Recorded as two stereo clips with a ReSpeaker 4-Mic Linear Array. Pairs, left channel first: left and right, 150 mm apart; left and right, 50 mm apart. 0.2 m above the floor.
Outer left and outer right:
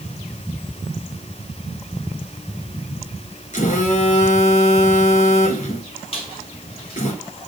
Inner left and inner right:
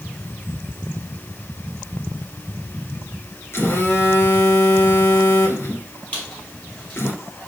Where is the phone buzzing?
55° left (ahead or behind), 1.4 m.